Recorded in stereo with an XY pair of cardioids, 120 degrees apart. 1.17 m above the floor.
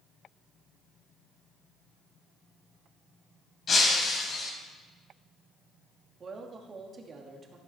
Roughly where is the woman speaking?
Ahead right.